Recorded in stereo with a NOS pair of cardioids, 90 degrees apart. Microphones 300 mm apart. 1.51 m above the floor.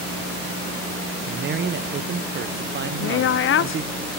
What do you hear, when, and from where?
1.3 s a man speaking: 35° right, 0.9 m
3.0 s a woman speaking: 45° left, 0.6 m